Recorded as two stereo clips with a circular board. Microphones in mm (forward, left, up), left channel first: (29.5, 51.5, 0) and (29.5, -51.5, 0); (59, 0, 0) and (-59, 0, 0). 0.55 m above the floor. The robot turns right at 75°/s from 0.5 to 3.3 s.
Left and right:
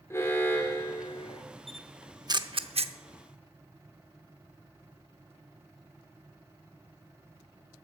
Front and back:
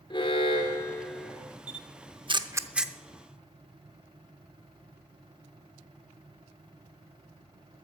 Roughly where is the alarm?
Ahead left.